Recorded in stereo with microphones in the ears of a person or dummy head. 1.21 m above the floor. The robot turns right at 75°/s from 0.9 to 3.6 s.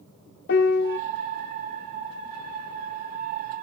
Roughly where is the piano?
Left.